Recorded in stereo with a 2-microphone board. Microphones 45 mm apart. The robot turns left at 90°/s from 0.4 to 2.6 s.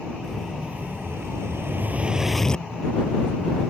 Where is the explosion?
5° right; by 2.6 s 155° left.